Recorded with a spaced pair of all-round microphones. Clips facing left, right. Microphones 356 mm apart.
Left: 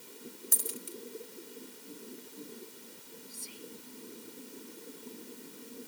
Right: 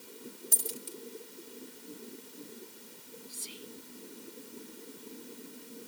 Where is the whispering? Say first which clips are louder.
Left 2 dB; 85° right.